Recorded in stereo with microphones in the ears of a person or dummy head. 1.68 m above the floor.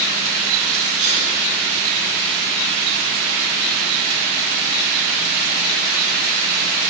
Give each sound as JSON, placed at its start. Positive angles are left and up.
{"t": 1.0, "sound": "a sneeze", "side_deg": -45, "distance_m": 3.0}